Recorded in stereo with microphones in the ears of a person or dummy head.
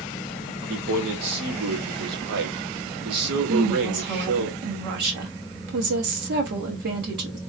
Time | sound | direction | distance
0.7 | a man speaking | 60° right (ahead or behind) | 1.2 m
3.5 | a woman speaking | 55° right (ahead or behind) | 1.0 m